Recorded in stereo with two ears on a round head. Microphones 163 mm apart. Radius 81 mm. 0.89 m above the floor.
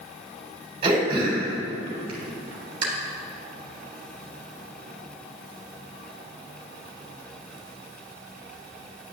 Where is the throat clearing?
30° right (ahead or behind), 3 m.